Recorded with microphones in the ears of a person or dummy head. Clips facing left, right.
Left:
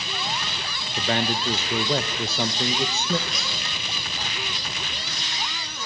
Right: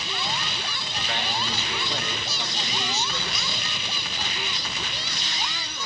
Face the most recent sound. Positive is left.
turn(degrees=65)  # may be behind; listen again after turning